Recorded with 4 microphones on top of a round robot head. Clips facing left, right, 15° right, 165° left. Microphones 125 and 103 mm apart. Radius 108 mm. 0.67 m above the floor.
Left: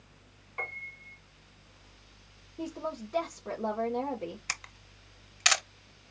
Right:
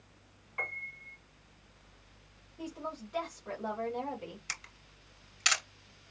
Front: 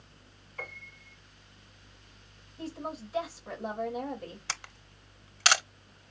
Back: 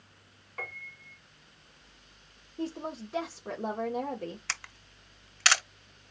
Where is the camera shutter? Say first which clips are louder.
Left 5 dB, even; 55° left, 1.2 m.